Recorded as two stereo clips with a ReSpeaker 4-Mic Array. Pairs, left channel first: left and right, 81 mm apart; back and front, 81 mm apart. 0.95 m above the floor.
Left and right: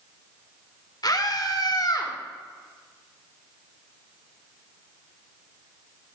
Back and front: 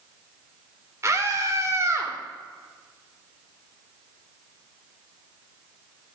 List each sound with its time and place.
1.0 s a scream: 55° left, 2.5 m